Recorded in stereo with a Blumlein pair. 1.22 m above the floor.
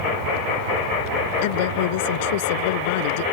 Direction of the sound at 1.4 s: 50° left.